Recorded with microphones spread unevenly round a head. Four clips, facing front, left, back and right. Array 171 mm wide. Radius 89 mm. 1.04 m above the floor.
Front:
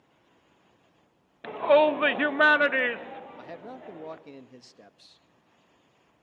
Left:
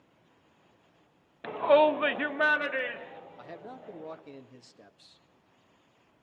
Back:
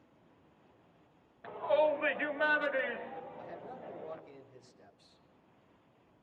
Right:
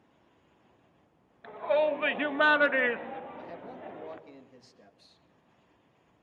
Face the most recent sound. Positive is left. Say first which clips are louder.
# right 2 dB, front 4 dB
turn(degrees=20)